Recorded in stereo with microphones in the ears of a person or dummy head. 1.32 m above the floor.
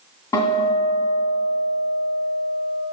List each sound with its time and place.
0.3 s a guitar: 20° left (ahead or behind), 2.5 m